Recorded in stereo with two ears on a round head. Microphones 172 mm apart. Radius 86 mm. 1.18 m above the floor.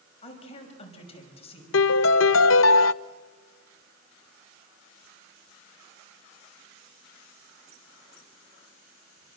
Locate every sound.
0.2 s a woman speaking: 30° left (ahead or behind), 5.5 m
1.7 s a piano: 75° left (ahead or behind), 0.6 m